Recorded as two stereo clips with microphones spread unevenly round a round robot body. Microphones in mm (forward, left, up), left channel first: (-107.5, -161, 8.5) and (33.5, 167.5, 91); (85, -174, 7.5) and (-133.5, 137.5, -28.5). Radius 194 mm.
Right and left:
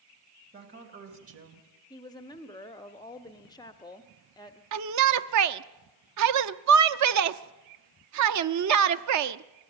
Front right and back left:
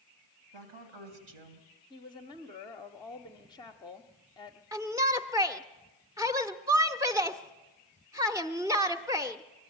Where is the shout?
60° left, 0.7 m.